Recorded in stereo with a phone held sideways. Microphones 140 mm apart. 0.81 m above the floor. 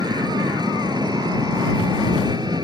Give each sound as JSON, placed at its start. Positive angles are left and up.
{"t": 0.0, "sound": "an engine running", "side_deg": -30}